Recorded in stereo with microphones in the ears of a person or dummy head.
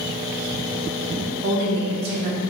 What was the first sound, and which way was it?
A woman speaking, 60° right (ahead or behind).